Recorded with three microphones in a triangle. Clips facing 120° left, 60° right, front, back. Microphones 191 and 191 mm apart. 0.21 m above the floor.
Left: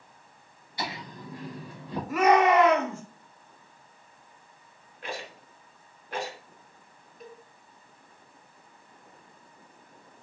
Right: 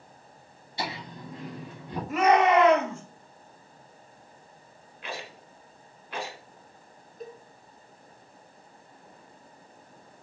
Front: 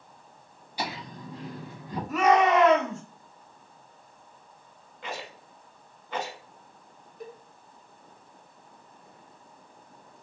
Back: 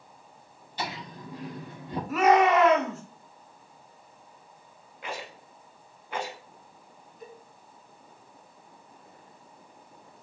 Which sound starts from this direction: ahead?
A cowbell, at 7.2 s.